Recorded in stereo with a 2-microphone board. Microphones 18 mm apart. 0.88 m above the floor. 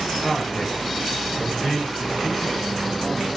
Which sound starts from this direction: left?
A man speaking, at 0.1 s.